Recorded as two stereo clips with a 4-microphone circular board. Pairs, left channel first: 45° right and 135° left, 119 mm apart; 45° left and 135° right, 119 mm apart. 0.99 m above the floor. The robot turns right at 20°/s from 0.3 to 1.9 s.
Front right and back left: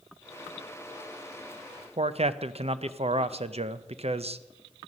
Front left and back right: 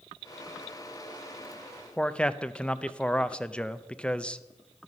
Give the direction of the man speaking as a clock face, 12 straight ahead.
8 o'clock.